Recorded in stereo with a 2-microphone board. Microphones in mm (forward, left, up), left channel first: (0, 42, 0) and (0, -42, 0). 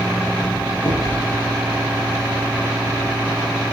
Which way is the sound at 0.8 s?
70° left (ahead or behind).